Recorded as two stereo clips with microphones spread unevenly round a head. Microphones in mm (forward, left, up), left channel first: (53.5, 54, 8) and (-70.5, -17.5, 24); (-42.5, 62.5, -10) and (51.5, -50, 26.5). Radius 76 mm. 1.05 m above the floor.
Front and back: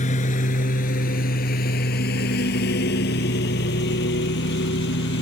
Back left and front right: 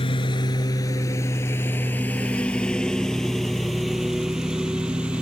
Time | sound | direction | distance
0.0 | a lawn mower | 70° left | ?